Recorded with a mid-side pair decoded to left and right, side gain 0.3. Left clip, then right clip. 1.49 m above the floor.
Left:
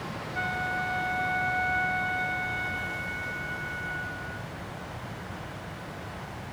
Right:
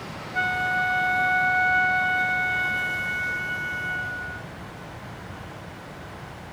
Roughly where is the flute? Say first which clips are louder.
Right 7 dB; right.